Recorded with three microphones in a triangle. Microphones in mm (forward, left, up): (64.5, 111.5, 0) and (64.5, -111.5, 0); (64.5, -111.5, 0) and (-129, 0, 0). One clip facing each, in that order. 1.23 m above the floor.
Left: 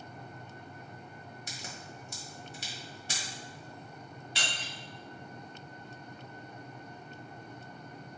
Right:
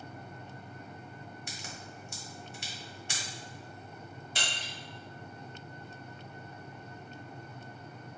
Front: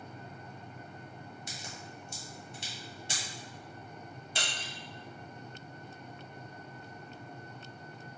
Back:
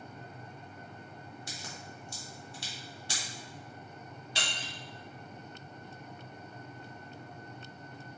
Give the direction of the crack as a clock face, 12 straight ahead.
11 o'clock.